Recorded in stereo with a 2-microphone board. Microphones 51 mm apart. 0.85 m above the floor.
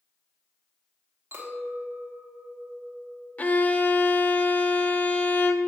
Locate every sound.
1.3 s a clink: 55° right (ahead or behind), 1.5 m
3.4 s a violin: 30° left (ahead or behind), 0.5 m